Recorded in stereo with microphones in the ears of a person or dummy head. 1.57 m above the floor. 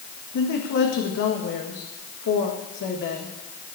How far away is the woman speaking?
About 1.6 m.